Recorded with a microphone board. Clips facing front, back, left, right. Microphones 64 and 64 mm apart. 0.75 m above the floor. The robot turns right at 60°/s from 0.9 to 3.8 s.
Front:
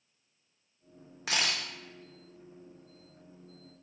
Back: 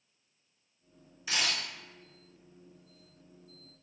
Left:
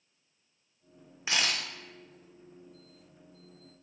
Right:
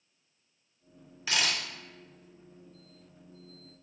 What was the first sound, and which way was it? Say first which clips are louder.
A camera shutter: front 1 dB, even; 20° left.